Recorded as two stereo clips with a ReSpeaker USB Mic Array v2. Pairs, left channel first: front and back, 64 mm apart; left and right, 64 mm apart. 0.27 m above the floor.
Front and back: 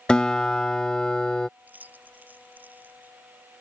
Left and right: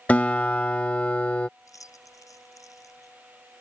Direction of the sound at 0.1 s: 60° left.